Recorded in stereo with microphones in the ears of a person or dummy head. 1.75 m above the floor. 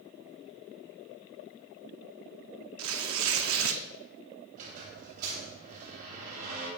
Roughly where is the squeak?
Right.